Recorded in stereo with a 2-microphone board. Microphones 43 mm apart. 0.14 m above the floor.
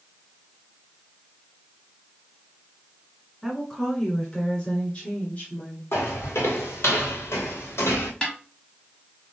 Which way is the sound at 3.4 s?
Centre (ahead or behind).